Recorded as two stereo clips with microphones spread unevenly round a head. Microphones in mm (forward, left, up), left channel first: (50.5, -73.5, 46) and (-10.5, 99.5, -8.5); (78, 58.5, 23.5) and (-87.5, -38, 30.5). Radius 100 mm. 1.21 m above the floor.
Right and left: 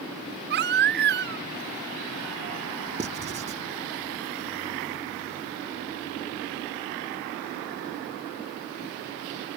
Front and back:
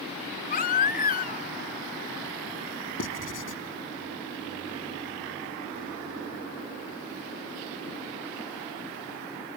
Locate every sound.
0.5 s a baby crying: 80° left
3.0 s writing: 55° left